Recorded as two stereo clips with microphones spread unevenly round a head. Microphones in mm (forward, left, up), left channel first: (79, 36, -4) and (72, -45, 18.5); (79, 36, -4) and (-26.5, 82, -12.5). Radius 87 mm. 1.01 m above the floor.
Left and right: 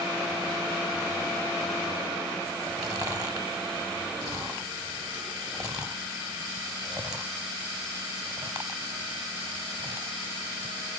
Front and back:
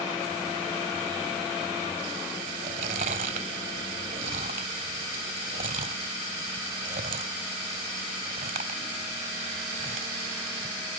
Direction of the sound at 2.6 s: 165° right.